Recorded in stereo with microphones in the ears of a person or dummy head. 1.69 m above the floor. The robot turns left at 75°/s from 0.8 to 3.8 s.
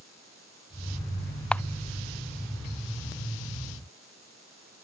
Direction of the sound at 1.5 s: 5° left (ahead or behind).